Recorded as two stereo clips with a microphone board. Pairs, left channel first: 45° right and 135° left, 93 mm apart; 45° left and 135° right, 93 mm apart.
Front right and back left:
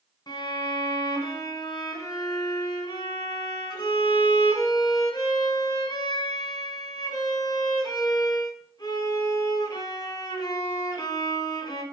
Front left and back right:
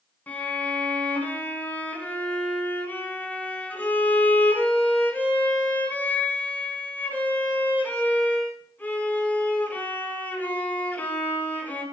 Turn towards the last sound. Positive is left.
turn(degrees=-20)